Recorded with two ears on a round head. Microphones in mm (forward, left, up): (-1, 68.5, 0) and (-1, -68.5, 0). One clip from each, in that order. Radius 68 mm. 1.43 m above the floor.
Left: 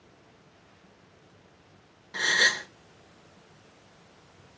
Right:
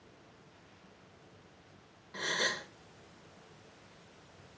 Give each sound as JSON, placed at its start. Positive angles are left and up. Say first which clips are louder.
{"t": 2.1, "sound": "a gasp", "louder": "left 10 dB", "side_deg": 45, "distance_m": 0.9}